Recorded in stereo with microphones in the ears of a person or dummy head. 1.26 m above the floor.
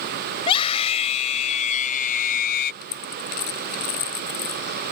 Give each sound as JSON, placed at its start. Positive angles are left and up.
{"t": 0.4, "sound": "a scream", "side_deg": 30}
{"t": 2.8, "sound": "a dropped coin", "side_deg": 55}